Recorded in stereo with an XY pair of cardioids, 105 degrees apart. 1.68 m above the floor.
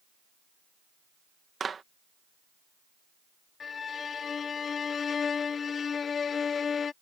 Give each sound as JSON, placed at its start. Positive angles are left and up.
{"t": 1.6, "sound": "a clap", "azimuth_deg": -35}
{"t": 3.6, "sound": "a violin", "azimuth_deg": 45}